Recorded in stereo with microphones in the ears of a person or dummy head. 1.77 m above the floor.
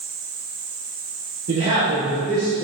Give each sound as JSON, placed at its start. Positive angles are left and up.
{"t": 1.5, "sound": "a man speaking", "side_deg": -40, "distance_m": 1.0}